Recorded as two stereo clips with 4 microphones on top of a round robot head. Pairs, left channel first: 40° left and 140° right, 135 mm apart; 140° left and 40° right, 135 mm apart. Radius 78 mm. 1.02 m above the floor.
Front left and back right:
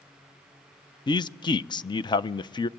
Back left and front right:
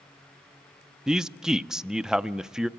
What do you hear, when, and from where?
1.1 s a man speaking: 45° left, 0.5 m